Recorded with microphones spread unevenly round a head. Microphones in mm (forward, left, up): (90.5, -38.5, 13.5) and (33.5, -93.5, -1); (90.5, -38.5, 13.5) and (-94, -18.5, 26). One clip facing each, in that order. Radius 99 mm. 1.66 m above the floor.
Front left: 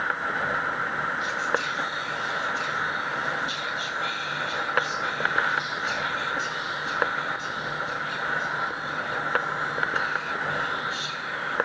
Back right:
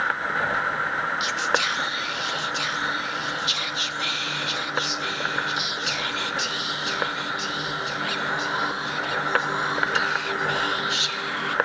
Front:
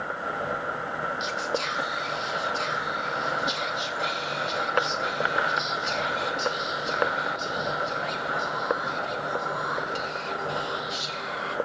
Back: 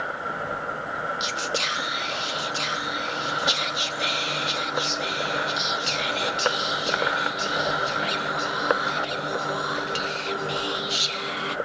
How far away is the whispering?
About 1.2 m.